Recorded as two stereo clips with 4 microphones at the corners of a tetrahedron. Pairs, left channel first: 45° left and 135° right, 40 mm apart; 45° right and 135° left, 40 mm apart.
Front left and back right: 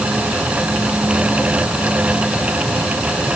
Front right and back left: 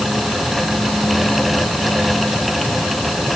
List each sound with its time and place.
Only background noise.